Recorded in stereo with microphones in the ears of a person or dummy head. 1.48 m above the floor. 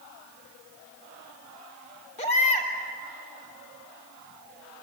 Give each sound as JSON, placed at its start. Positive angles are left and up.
{"t": 2.2, "sound": "a baby crying", "side_deg": 35, "distance_m": 2.5}